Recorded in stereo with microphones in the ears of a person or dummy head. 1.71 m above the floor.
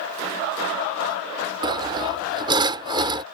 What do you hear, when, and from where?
1.6 s sawing: 25° right (ahead or behind)